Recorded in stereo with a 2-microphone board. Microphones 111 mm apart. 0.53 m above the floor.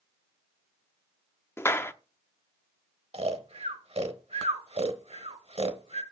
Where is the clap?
20° left (ahead or behind), 0.6 m.